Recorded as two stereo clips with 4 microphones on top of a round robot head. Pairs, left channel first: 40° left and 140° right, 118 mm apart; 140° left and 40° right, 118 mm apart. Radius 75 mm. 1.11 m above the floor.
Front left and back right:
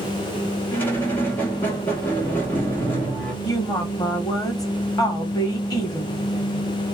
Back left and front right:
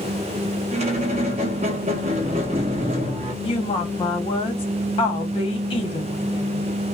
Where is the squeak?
25° right, 0.7 m.